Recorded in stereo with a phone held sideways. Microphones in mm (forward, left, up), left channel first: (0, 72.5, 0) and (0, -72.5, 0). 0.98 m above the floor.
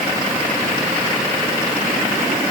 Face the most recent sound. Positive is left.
No sound to turn to.